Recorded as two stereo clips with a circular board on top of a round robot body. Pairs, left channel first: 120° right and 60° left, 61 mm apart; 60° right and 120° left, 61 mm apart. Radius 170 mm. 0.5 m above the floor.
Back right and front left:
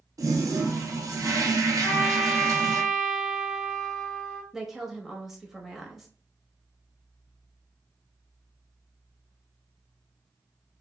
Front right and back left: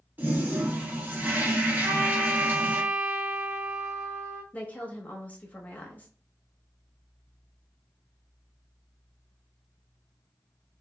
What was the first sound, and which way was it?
A toilet flushing, 65° left.